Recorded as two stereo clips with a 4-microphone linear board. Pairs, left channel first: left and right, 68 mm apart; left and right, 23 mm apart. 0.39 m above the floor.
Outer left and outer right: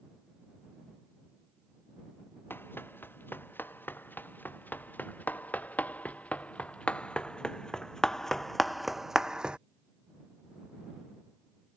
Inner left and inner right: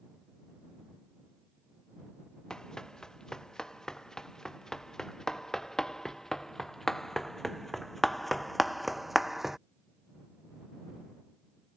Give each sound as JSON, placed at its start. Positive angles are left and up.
{"t": 2.5, "sound": "running footsteps", "side_deg": 30}